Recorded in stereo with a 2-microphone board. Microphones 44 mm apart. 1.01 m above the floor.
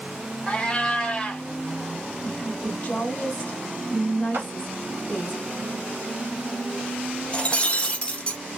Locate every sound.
0.5 s a cat meowing: 20° left (ahead or behind), 1.1 m
2.2 s a woman speaking: 40° left (ahead or behind), 1.5 m
4.3 s a clap: 65° right (ahead or behind), 1.4 m
7.3 s breaking glass: 30° left (ahead or behind), 0.7 m